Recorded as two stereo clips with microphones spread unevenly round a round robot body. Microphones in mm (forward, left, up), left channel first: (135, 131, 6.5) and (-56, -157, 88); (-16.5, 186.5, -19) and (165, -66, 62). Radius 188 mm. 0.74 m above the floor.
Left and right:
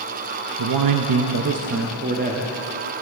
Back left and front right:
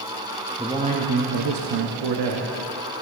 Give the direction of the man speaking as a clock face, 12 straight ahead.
5 o'clock.